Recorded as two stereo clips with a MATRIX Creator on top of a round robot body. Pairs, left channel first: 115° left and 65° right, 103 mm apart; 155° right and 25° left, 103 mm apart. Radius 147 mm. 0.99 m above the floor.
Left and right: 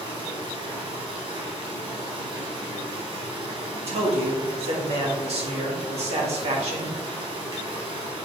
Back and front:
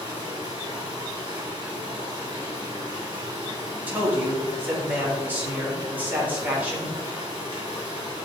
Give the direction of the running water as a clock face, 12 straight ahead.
1 o'clock.